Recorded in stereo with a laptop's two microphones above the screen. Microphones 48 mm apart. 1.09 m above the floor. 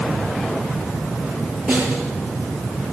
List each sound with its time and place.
1.7 s a snare drum: 5° right (ahead or behind), 9 m